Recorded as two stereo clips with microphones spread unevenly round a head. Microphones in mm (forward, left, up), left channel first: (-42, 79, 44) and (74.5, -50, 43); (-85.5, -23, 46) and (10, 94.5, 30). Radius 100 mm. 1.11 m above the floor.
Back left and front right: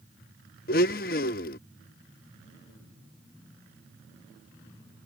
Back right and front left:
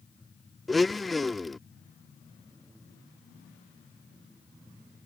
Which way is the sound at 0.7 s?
150° left.